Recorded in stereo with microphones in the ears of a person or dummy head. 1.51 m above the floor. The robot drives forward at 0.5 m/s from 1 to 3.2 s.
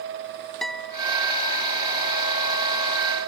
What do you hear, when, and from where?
0.6 s a guitar: centre (ahead or behind)